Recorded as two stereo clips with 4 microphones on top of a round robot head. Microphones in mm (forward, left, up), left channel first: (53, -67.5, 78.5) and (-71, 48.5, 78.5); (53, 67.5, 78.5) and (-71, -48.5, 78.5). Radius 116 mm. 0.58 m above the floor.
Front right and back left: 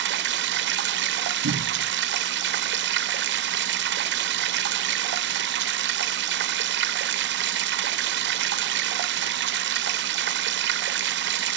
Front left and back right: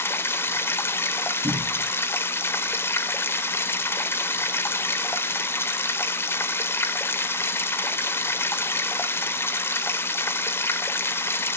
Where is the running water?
120° left, 1.5 m.